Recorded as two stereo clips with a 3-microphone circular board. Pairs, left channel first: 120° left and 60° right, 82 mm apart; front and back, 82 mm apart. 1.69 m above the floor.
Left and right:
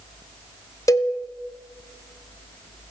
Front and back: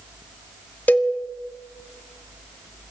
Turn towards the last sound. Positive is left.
turn(degrees=70)